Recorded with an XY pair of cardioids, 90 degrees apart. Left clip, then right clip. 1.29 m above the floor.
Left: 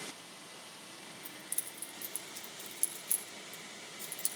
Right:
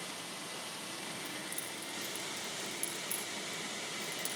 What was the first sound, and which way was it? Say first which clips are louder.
Keys jangling: right 5 dB; 60° left.